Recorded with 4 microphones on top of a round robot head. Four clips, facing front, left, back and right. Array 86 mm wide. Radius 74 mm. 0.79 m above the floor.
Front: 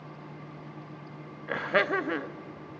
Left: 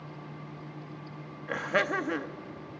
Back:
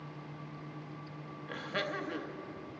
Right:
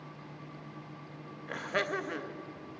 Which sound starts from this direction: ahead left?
Laughter, at 1.5 s.